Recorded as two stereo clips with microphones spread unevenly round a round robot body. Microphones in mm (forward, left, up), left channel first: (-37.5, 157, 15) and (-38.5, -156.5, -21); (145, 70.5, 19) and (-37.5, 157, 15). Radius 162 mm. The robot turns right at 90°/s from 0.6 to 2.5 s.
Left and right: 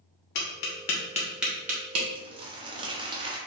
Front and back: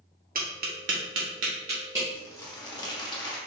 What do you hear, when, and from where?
0.3 s tapping: 110° left, 1.4 m; by 2.0 s 120° right, 1.4 m
2.1 s crumpling: 95° right, 1.0 m; by 3.4 s 65° right, 1.0 m